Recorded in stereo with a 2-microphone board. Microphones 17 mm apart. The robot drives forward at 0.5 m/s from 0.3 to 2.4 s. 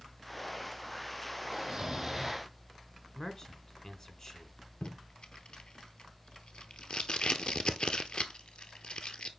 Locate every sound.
1.5 s snoring: 25° right (ahead or behind), 1.6 m; by 2.5 s 20° right (ahead or behind), 1.9 m
3.1 s a man speaking: 35° left (ahead or behind), 1.7 m
4.8 s tape being pulled: 70° left (ahead or behind), 0.9 m